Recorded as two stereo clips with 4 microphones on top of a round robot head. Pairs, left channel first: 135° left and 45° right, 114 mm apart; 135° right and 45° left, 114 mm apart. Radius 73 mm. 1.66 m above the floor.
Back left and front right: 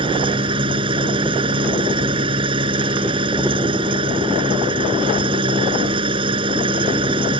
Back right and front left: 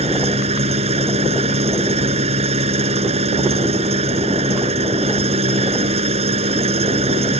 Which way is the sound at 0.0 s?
5° left.